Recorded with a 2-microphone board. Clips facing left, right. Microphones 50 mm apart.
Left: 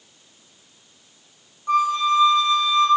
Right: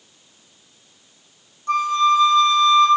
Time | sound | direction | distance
1.7 | a flute | 10° left (ahead or behind) | 4 m